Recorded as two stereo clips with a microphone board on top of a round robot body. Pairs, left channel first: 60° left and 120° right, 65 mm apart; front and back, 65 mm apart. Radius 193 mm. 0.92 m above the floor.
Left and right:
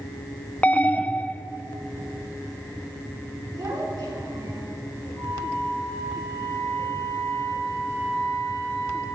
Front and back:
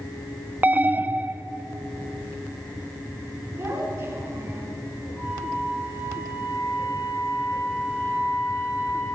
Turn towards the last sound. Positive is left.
turn(degrees=-120)